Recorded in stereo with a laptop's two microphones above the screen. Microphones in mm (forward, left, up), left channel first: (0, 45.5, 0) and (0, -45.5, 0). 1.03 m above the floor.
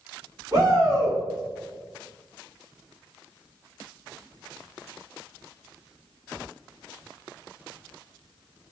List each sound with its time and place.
0.5 s a shout: 35° right (ahead or behind), 1.4 m